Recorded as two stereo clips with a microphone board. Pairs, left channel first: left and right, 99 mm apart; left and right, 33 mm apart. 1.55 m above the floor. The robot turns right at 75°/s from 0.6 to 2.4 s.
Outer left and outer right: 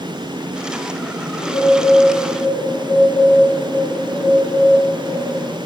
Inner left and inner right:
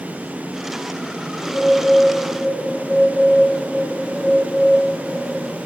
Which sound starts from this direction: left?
A bird, at 1.4 s.